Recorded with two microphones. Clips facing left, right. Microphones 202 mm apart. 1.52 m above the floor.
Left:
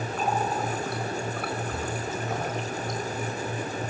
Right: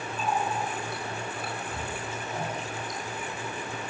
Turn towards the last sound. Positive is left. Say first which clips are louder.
# left 2 dB
turn(degrees=65)  # may be behind; listen again after turning